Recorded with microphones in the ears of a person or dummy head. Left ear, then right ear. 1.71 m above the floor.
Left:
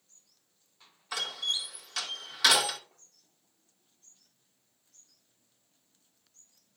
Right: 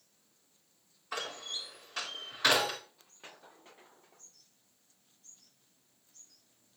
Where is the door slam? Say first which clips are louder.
Left 7 dB; 75° left (ahead or behind), 4 m.